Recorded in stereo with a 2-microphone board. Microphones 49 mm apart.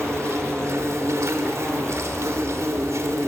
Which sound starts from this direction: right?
An insect, at 0.0 s.